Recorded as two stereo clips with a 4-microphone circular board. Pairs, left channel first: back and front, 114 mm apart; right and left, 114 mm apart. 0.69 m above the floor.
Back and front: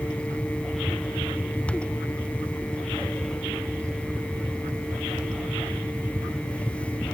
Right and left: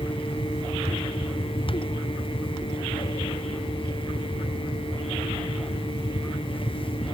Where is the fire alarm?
No fire alarm in this recording.